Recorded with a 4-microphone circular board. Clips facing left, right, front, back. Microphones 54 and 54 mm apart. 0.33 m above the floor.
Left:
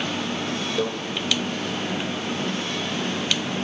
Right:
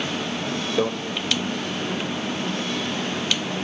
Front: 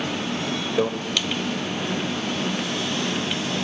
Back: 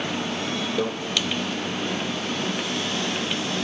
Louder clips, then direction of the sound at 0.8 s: Right 3 dB, front 4 dB; 50° right.